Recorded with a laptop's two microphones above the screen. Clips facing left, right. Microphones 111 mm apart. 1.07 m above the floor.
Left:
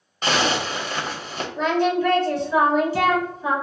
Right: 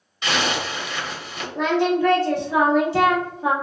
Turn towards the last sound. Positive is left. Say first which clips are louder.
# right 1 dB
turn(degrees=-80)